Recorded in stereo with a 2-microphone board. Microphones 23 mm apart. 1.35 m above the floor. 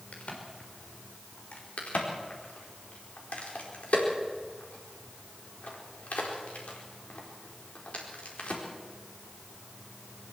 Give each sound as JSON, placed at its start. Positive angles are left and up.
{"t": 0.1, "sound": "a crack", "side_deg": 85, "distance_m": 4.0}
{"t": 1.8, "sound": "a crack", "side_deg": 80, "distance_m": 4.5}